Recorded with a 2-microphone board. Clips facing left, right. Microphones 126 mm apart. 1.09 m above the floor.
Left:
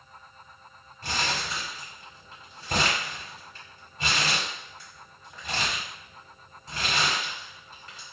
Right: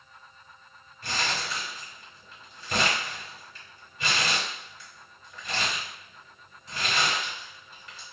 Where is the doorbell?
I don't hear a doorbell.